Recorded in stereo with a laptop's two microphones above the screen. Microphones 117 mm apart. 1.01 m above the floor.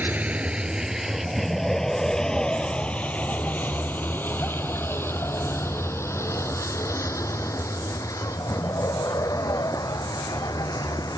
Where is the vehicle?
15° right (ahead or behind); by 11.2 s 35° left (ahead or behind).